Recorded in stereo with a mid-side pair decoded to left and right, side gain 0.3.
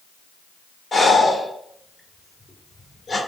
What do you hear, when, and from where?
0.9 s breathing: 45° left, 1.0 m